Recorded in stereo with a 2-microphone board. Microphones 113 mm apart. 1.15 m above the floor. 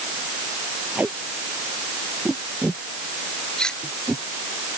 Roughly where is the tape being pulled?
Centre.